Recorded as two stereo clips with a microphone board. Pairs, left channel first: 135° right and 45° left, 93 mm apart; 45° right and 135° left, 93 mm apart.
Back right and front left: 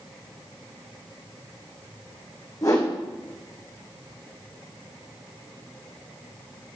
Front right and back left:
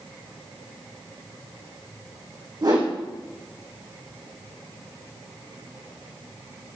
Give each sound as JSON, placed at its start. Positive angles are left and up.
{"t": 2.6, "sound": "a whoosh", "azimuth_deg": 175, "distance_m": 4.5}